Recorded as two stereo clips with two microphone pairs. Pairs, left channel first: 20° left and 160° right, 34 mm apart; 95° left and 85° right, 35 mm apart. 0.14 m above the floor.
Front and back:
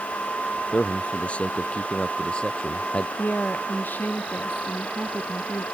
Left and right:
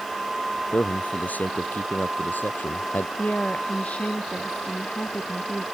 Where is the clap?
I don't hear a clap.